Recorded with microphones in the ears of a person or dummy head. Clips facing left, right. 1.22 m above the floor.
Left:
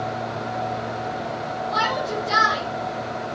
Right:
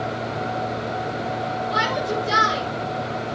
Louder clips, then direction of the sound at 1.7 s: Even; 30° right (ahead or behind).